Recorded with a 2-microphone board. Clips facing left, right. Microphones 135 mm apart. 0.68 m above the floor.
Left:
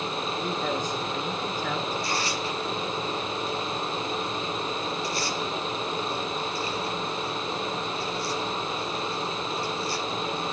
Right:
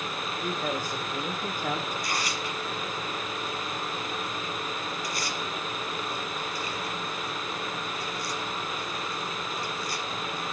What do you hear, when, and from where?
0.4 s a man speaking: 5° right (ahead or behind), 2 m; by 1.8 s 25° right (ahead or behind), 1.8 m
1.9 s tearing paper: 25° left (ahead or behind), 5.5 m